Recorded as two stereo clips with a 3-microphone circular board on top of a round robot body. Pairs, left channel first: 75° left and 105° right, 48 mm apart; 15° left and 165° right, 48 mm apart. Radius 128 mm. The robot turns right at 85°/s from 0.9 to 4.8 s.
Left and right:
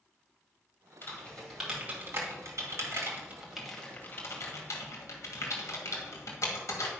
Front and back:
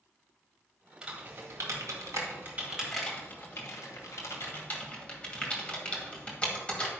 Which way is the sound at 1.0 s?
120° left.